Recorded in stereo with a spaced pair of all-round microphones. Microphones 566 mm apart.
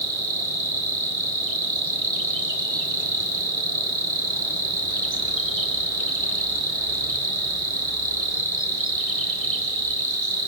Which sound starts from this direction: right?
An insect, at 0.0 s.